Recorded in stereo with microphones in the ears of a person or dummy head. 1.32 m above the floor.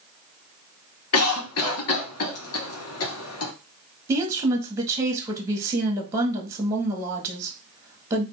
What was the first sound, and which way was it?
A cough, 70° left (ahead or behind).